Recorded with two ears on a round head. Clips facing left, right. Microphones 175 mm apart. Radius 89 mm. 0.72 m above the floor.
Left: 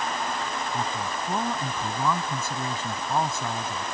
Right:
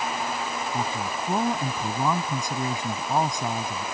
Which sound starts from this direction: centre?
A man speaking, at 0.7 s.